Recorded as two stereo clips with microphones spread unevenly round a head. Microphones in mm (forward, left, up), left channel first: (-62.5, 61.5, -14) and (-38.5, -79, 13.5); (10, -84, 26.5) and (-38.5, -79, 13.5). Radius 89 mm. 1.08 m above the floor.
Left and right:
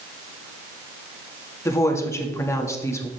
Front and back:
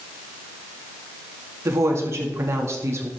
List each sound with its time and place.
1.6 s a woman speaking: 170° left, 2 m